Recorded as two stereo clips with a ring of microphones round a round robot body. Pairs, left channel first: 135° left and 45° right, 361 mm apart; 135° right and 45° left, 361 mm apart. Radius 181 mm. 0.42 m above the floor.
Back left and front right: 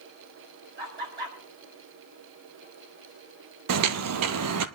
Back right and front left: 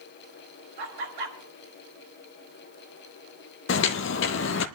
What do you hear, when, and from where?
0.8 s laughter: 20° left, 5 m
3.7 s footsteps: 85° right, 0.6 m